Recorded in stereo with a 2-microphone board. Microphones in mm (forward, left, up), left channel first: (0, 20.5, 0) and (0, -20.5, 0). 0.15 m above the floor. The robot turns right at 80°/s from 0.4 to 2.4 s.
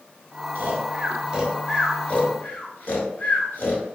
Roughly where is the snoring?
Right.